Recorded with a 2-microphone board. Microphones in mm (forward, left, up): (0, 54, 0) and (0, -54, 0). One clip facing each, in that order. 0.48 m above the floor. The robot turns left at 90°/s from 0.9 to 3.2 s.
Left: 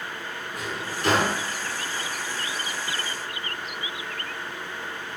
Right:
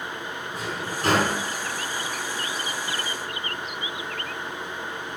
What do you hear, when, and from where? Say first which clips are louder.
0.5 s a drawer: right 1 dB; 30° right (ahead or behind), 1.7 m; by 1.4 s 75° right (ahead or behind), 1.7 m